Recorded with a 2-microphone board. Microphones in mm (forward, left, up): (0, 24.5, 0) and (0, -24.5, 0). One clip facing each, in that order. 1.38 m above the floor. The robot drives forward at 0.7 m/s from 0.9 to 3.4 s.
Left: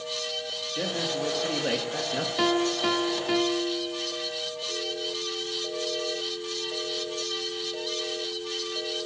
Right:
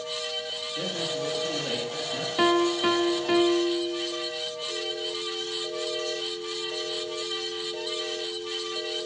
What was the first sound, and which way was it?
A man speaking, 30° left (ahead or behind).